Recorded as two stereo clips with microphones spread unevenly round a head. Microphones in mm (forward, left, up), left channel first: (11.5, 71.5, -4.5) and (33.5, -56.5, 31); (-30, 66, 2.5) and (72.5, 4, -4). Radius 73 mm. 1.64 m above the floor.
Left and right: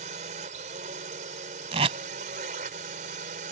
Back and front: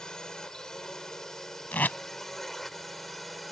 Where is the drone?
125° right; by 3.5 s 120° right.